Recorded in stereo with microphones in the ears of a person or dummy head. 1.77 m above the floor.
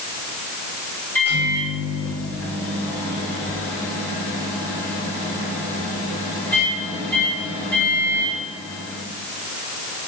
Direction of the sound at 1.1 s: 10° left (ahead or behind).